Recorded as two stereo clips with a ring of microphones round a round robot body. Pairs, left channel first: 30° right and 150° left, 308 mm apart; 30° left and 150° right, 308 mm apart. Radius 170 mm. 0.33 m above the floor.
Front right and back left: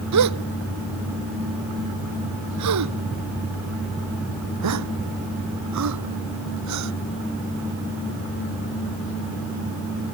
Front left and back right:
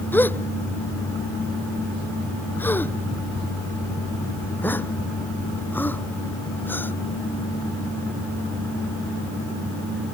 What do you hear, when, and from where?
0.1 s a gasp: 115° left